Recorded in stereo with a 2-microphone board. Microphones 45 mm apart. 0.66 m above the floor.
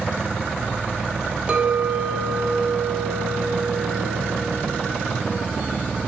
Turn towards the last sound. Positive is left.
turn(degrees=-30)  # may be behind; listen again after turning